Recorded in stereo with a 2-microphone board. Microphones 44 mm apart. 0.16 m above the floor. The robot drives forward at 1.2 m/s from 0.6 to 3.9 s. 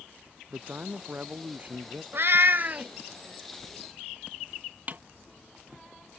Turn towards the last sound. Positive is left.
turn(degrees=-45)  # may be behind; listen again after turning